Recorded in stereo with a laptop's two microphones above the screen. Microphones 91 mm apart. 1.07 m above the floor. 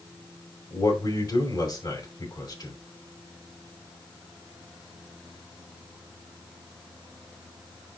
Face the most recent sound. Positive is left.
turn(degrees=50)  # may be behind; listen again after turning